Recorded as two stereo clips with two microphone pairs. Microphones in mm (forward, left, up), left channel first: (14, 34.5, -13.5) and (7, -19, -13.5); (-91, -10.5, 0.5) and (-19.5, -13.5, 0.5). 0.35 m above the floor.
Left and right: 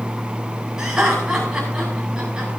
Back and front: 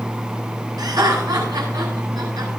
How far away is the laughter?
About 9.5 m.